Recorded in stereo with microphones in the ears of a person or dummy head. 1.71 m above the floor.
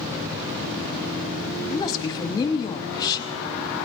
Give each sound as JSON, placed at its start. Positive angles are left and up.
{"t": 1.7, "sound": "a woman speaking", "side_deg": 20, "distance_m": 1.0}